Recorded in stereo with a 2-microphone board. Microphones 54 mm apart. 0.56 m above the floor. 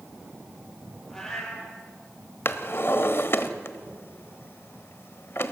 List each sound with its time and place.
1.1 s a cat meowing: 10° left (ahead or behind), 5 m
2.5 s a drawer: 50° left (ahead or behind), 0.9 m